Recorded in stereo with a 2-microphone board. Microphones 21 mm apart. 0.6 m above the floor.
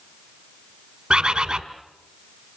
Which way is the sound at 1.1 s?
65° right (ahead or behind).